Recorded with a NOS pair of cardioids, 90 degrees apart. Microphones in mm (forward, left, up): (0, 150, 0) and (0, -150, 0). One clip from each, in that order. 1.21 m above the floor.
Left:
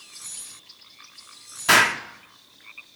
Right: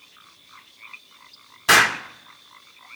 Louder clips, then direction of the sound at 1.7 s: Right 1 dB; straight ahead.